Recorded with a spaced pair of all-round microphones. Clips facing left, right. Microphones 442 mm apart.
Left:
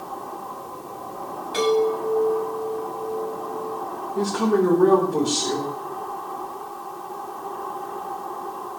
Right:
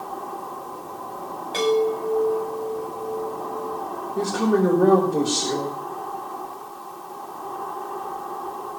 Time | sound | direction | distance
1.5 | a chime | 25° left (ahead or behind) | 8 m
4.2 | a woman speaking | 10° left (ahead or behind) | 4.5 m